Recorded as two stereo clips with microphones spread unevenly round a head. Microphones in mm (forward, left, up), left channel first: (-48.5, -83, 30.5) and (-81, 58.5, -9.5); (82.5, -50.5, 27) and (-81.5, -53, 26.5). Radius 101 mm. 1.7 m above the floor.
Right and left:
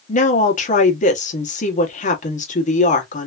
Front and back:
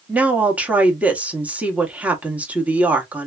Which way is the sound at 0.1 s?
100° right.